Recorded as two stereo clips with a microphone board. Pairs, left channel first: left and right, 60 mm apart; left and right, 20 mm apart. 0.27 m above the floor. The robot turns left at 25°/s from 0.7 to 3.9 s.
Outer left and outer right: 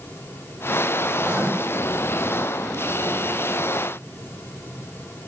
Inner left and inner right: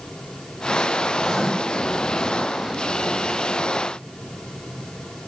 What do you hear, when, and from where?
1.2 s writing: 15° right (ahead or behind), 1.8 m; by 1.5 s 10° right (ahead or behind), 1.8 m